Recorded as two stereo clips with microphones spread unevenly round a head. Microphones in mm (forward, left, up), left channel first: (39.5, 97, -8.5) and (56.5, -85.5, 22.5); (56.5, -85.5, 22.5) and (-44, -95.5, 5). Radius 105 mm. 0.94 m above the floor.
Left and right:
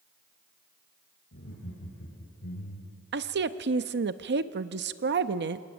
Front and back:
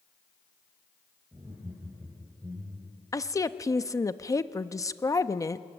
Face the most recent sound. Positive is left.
turn(degrees=-55)